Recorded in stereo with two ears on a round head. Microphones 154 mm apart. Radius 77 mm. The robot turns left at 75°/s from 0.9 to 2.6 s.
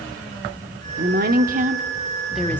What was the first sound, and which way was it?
A woman speaking, 75° right.